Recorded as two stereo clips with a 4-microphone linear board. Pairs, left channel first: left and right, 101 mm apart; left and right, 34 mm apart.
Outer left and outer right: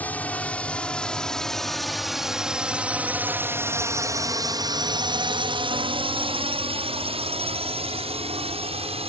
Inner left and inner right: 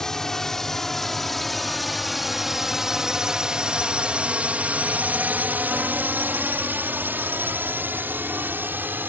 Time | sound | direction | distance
0.0 | a drone | 15° left (ahead or behind) | ?